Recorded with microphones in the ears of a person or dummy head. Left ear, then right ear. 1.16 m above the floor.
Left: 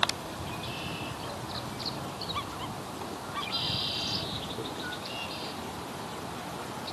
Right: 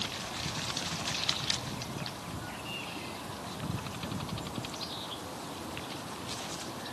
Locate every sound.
Only background noise.